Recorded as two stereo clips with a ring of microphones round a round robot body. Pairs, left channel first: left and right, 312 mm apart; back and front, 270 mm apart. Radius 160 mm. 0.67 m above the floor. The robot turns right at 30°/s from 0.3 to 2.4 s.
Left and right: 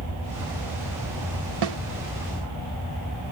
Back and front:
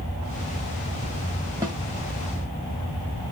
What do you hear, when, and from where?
1.6 s a snare drum: 80° right, 1.0 m; by 1.8 s 75° right, 1.0 m